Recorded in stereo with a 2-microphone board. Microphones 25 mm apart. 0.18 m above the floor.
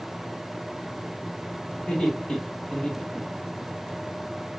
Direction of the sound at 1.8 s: 45° left (ahead or behind).